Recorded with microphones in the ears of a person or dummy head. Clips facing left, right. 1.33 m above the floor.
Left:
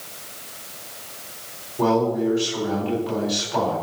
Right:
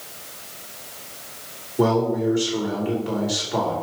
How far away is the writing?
No writing in this recording.